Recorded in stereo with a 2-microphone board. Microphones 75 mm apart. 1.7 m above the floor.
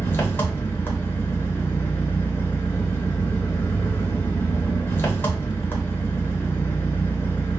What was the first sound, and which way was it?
An engine running, 30° left (ahead or behind).